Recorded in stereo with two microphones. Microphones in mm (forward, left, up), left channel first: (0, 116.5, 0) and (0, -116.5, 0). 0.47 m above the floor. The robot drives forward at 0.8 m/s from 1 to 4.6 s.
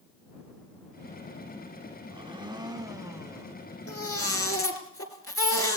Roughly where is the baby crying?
Left.